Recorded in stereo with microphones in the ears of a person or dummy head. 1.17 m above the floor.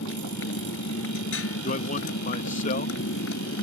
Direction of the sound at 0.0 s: 80° left.